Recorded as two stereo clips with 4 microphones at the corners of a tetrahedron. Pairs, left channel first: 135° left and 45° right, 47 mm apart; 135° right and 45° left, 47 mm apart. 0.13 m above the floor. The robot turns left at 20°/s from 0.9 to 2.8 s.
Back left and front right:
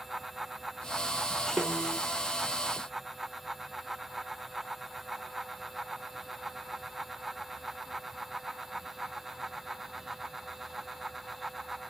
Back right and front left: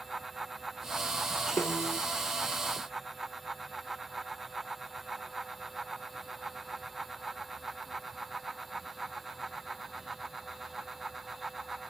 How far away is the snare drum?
About 7 m.